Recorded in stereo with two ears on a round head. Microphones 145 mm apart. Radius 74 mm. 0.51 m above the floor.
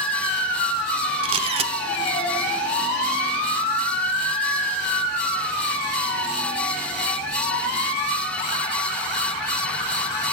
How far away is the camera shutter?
About 0.8 m.